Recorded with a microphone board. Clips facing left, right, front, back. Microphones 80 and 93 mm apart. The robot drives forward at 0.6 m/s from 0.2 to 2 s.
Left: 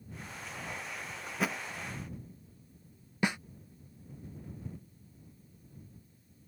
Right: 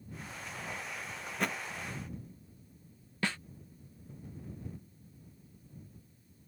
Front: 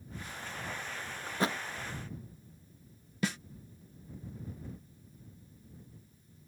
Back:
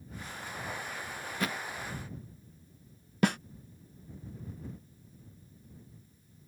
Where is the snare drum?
160° left.